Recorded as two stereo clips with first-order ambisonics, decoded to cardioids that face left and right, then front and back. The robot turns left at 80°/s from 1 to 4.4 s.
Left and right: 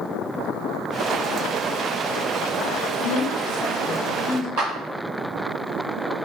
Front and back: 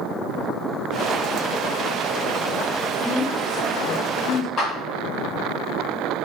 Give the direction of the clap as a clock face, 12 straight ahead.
2 o'clock.